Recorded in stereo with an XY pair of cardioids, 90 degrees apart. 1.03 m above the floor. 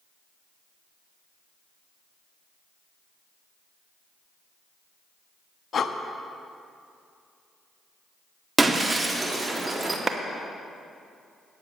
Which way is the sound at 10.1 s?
40° right.